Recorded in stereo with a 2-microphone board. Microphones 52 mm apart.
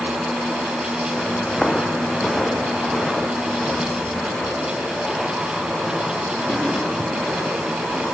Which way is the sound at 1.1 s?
5° left (ahead or behind).